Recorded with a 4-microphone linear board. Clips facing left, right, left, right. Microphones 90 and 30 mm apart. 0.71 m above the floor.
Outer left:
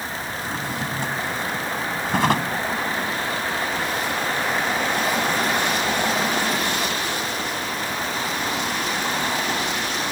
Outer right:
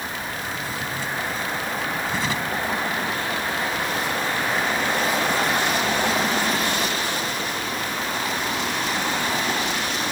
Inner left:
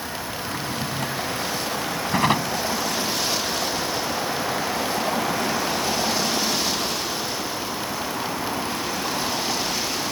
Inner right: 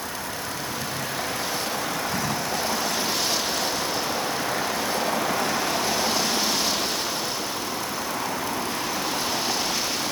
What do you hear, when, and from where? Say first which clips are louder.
0.4 s a drawer: outer left 2 dB, inner left 2 dB; 60° left (ahead or behind)